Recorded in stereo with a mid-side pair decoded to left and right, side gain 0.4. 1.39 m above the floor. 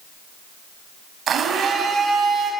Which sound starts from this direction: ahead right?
A blender, at 1.3 s.